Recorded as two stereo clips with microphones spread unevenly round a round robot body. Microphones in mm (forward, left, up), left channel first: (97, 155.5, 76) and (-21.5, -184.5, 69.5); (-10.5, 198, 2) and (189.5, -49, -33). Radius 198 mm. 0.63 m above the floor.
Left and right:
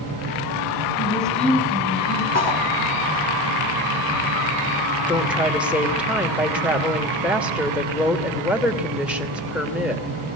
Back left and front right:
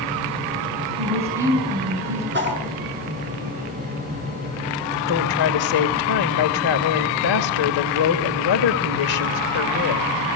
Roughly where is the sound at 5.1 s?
Behind.